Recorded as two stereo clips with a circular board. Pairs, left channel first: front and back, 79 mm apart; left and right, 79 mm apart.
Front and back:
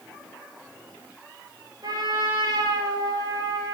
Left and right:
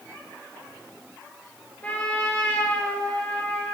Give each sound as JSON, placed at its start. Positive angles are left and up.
{"t": 1.8, "sound": "a trumpet", "azimuth_deg": 160, "distance_m": 3.0}